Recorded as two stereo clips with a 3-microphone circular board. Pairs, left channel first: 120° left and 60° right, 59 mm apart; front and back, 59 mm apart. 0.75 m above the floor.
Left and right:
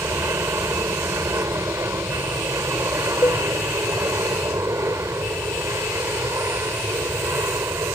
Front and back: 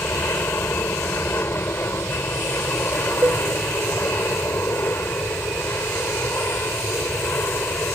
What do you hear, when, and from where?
0.0 s an aircraft: 40° right
3.2 s a cowbell: 140° left